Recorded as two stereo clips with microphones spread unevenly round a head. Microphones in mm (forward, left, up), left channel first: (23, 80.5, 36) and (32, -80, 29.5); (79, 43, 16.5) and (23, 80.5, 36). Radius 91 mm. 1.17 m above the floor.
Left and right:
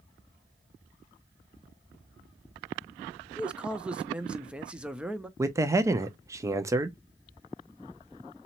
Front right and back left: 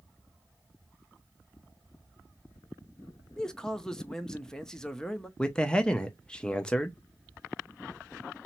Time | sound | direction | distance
3.4 | a man speaking | 15° right | 0.6 m
5.4 | a man speaking | 40° right | 0.5 m